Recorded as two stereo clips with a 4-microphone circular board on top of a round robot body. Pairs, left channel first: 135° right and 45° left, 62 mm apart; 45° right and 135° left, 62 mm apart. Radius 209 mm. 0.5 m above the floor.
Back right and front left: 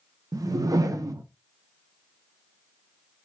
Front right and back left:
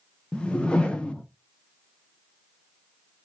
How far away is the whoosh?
About 0.5 m.